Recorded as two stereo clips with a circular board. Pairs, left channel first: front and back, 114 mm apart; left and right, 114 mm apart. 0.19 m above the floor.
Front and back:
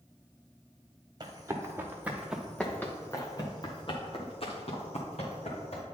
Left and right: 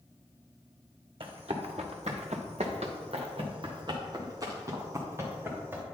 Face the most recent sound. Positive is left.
turn(degrees=-20)